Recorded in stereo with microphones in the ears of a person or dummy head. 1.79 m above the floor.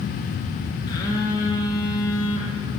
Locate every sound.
0.9 s a phone buzzing: 25° left (ahead or behind), 1.0 m